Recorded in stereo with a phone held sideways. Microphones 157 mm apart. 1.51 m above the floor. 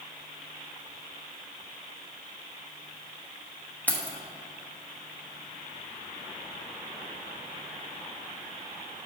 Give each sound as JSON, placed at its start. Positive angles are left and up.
{"t": 3.9, "sound": "keys jangling", "side_deg": 10, "distance_m": 1.0}